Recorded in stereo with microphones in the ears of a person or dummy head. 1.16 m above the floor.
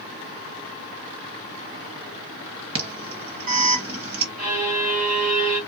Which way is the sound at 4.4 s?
35° right (ahead or behind).